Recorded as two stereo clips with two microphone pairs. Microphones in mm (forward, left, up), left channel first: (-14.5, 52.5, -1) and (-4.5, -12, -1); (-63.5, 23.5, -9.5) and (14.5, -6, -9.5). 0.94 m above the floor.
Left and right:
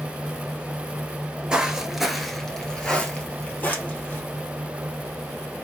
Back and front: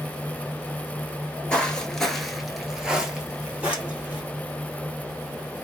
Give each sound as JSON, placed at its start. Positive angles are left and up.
{"t": 1.5, "sound": "footsteps", "azimuth_deg": -145, "distance_m": 1.0}